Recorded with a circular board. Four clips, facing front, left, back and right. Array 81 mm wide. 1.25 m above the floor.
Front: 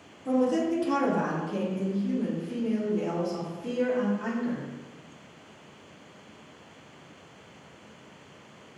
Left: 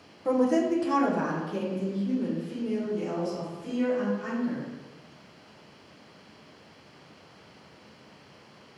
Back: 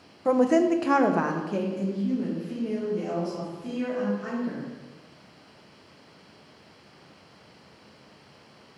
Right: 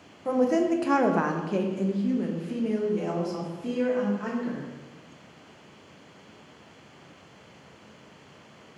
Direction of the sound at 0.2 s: Straight behind.